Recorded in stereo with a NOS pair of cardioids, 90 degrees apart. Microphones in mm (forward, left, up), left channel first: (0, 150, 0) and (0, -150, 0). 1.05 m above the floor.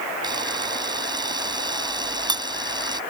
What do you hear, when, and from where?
0.2 s a camera shutter: 15° right